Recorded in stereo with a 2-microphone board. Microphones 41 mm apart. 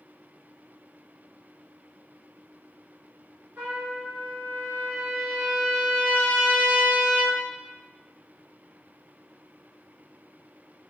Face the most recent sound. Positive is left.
turn(degrees=-65)  # may be behind; listen again after turning